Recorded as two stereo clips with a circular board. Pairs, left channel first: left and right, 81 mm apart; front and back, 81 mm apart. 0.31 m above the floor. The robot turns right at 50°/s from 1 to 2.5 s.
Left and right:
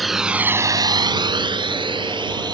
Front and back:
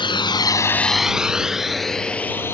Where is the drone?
Straight ahead; by 2.5 s 60° right.